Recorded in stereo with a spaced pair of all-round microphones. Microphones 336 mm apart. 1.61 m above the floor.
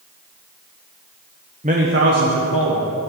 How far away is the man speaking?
About 0.9 m.